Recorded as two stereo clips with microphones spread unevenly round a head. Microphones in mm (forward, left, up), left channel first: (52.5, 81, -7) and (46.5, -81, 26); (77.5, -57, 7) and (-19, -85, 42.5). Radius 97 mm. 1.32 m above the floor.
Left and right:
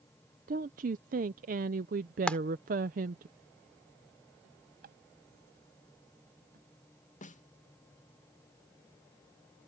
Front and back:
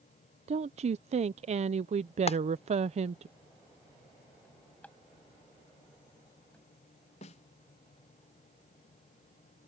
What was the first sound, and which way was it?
A woman speaking, 140° right.